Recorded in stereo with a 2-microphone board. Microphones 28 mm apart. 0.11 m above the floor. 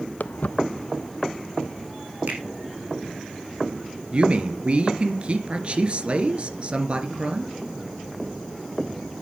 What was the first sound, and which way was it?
Footsteps, 80° left.